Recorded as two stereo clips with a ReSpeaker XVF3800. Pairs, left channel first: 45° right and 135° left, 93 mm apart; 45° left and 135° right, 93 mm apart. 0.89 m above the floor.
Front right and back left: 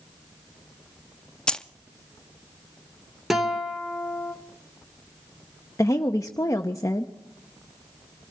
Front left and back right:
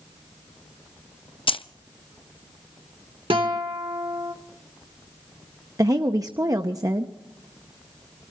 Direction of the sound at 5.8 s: 95° right.